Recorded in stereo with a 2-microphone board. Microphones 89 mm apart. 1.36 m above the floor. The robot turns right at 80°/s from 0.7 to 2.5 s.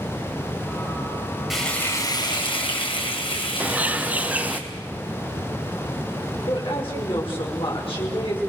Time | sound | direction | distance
1.5 | frying | 5° right | 4 m
3.6 | a bird | 15° right (ahead or behind) | 0.5 m
6.4 | a woman speaking | 80° left | 5.5 m